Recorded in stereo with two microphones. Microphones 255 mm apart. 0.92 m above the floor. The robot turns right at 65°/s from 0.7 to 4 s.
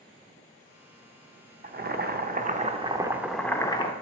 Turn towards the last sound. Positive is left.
turn(degrees=45)